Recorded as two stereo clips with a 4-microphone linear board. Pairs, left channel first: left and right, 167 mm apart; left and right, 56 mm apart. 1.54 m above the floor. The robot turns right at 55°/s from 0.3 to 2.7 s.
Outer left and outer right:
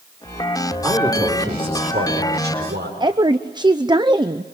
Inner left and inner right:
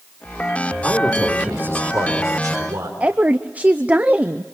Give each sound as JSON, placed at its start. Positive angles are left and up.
{"t": 0.8, "sound": "a man speaking", "azimuth_deg": -175, "distance_m": 4.5}
{"t": 3.0, "sound": "a woman speaking", "side_deg": -25, "distance_m": 0.7}